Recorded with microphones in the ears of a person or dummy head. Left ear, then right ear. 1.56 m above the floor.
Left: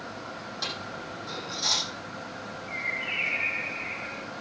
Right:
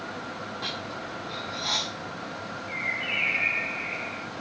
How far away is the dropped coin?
About 5.5 m.